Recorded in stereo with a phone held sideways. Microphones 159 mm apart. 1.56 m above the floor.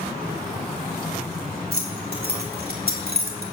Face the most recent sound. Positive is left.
turn(degrees=-75)  # may be behind; listen again after turning